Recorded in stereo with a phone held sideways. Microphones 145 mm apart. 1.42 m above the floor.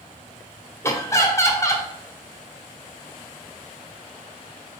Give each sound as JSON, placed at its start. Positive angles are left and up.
{"t": 0.8, "sound": "laughter", "side_deg": 20, "distance_m": 0.9}